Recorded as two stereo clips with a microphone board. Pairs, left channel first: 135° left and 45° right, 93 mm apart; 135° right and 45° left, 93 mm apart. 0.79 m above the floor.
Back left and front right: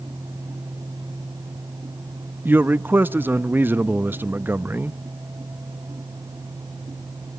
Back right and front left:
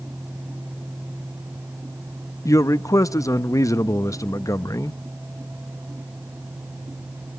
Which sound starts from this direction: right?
A man speaking, at 2.5 s.